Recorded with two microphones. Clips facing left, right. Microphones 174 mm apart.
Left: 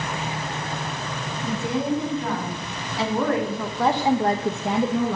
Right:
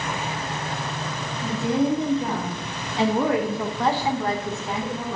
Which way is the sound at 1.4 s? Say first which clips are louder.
Right 3 dB; 35° right (ahead or behind).